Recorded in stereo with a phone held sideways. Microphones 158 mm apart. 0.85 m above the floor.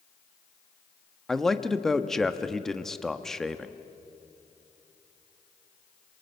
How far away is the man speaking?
About 1.0 m.